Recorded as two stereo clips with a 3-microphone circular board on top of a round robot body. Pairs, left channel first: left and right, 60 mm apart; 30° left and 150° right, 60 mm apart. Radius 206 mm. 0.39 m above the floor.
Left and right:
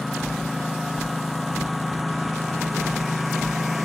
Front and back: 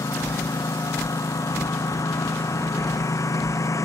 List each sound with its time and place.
0.0 s a lawn mower: straight ahead